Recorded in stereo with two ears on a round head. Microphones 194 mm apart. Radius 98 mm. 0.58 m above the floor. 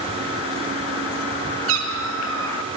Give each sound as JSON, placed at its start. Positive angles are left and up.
{"t": 1.7, "sound": "a cat meowing", "side_deg": -65, "distance_m": 3.5}